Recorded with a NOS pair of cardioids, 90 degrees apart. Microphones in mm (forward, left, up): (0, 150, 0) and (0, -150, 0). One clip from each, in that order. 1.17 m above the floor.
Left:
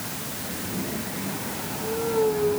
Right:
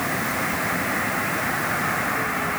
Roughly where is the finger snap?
I don't hear a finger snap.